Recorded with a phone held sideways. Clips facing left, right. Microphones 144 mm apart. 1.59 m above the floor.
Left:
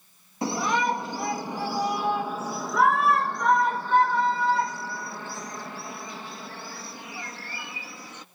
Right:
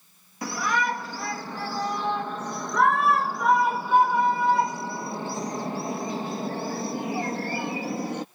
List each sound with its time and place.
0.4 s a shout: 25° left (ahead or behind); by 8.2 s 60° right (ahead or behind)